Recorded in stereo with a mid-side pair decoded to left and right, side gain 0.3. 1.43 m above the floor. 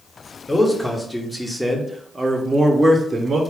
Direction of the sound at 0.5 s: 15° left.